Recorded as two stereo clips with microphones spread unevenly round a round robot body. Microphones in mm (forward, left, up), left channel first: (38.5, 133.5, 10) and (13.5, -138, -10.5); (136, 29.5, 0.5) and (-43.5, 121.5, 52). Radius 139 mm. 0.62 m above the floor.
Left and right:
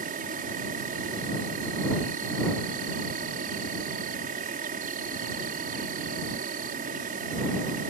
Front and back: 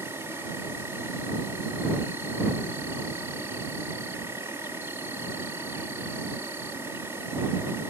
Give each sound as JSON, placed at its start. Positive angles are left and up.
{"t": 0.0, "sound": "an insect", "azimuth_deg": -110}